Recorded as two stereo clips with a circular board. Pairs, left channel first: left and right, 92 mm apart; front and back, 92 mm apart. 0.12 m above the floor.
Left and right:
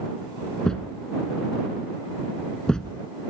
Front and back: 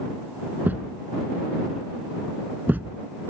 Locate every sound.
0.6 s a thud: 160° left